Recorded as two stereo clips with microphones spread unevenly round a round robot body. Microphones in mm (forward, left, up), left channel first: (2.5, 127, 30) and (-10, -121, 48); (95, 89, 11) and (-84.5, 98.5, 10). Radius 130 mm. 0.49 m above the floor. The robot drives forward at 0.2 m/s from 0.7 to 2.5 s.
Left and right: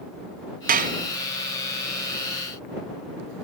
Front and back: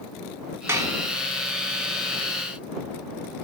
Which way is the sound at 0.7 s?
120° right.